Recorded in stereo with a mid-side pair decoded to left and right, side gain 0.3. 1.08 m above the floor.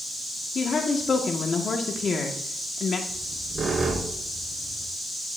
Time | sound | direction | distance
0.6 | a woman speaking | 65° left | 1.8 m
3.1 | a squeak | 55° right | 3 m